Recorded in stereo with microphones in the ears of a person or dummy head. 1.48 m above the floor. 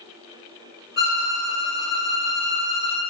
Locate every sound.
1.0 s a violin: 55° left (ahead or behind), 0.8 m